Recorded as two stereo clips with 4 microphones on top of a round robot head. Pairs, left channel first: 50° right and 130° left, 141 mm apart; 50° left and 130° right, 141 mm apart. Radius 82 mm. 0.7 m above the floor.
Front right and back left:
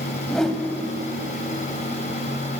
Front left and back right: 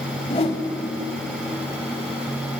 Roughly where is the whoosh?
Ahead left.